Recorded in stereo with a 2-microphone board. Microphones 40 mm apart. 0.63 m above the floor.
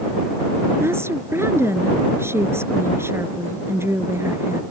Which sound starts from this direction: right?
A woman speaking, at 0.8 s.